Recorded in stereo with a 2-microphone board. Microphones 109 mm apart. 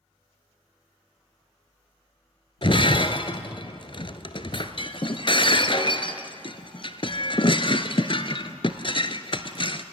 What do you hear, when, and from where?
2.6 s breaking glass: 50° left (ahead or behind), 1.1 m